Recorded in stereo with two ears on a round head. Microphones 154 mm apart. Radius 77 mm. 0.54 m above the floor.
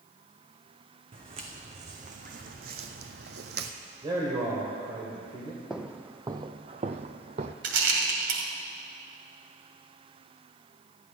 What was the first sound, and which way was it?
Footsteps, 30° right (ahead or behind).